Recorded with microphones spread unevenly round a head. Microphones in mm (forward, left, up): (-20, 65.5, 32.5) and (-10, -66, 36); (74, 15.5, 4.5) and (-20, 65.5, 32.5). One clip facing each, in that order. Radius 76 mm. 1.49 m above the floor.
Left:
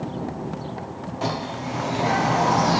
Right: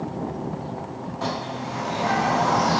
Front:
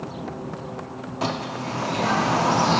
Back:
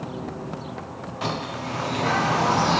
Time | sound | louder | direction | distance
1.2 | a bird | left 2 dB, front 2 dB | 20° left | 0.8 m